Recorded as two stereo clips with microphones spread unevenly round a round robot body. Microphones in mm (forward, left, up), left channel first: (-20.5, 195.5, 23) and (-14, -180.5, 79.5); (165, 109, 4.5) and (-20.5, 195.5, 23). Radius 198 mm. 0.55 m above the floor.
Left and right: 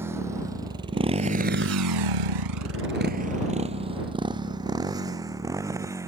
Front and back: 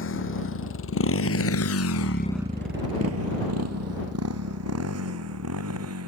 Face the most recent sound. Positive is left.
turn(degrees=-170)